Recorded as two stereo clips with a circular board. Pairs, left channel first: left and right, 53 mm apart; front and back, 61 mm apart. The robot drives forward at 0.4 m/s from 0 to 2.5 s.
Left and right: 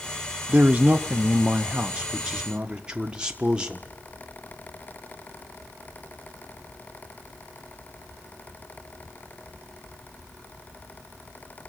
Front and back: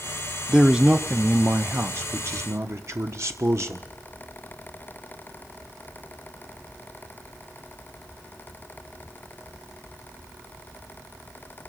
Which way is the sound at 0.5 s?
105° right.